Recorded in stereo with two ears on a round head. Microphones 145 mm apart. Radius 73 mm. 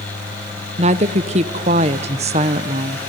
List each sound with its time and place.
0.8 s a woman speaking: 40° right (ahead or behind), 1.1 m